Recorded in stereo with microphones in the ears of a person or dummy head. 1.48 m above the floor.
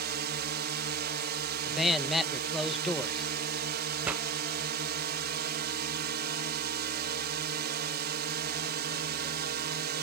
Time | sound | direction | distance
0.0 | a drone | 55° right (ahead or behind) | ?
1.6 | a man speaking | centre (ahead or behind) | ?
4.0 | a pop | 10° right (ahead or behind) | ?